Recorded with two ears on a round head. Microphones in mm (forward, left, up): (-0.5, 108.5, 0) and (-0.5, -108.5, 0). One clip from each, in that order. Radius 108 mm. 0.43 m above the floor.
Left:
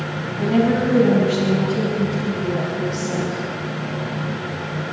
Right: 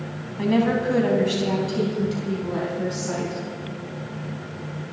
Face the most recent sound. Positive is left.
turn(degrees=-70)  # may be behind; listen again after turning